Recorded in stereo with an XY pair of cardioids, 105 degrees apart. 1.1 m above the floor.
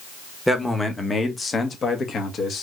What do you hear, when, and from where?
0.5 s a man speaking: 5° left, 1.3 m; by 2.6 s 55° left, 2 m